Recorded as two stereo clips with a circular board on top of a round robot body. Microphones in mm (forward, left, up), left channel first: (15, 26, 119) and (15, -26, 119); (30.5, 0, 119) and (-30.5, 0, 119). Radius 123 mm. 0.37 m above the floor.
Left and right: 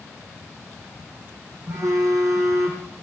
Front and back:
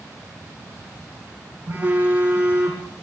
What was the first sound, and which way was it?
A phone buzzing, 115° right.